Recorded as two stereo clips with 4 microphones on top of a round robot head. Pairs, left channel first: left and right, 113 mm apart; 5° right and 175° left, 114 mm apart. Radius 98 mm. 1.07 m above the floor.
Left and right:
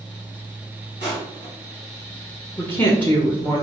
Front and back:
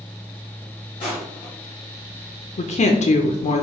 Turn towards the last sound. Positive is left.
turn(degrees=15)